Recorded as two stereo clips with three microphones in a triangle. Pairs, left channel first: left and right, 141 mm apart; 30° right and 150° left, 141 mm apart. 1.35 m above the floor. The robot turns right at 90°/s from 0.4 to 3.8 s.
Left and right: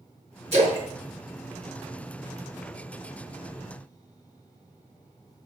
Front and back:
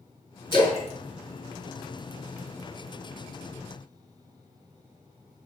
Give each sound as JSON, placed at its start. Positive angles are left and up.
{"t": 0.5, "sound": "a splash", "azimuth_deg": -75, "distance_m": 1.4}